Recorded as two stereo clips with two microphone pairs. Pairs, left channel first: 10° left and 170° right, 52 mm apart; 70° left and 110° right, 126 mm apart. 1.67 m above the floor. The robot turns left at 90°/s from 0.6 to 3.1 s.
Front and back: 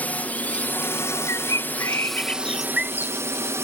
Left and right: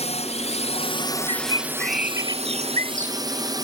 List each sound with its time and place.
0.0 s a drone: 65° left; by 3.6 s 165° right
1.3 s a bird: 35° left; by 3.2 s 125° right